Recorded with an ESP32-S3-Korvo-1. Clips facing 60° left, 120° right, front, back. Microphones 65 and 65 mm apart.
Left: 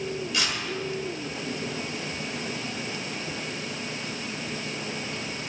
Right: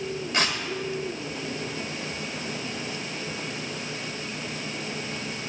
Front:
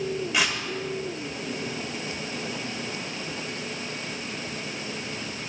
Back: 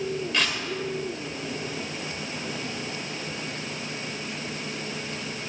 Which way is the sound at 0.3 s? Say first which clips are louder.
Right 5 dB, front 2 dB; 80° right.